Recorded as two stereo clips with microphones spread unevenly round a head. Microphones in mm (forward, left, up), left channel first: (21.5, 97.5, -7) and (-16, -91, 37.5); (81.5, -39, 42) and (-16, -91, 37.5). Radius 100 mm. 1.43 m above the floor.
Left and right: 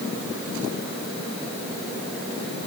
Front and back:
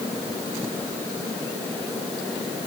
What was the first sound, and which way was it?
Only background noise.